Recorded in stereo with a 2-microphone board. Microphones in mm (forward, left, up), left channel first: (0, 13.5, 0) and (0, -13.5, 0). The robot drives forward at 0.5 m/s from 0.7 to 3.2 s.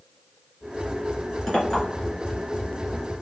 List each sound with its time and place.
1.5 s a clink: 15° left (ahead or behind), 2.5 m